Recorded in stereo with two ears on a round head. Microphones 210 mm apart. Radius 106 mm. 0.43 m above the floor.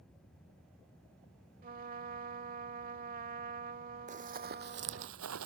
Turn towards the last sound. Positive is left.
turn(degrees=-60)  # may be behind; listen again after turning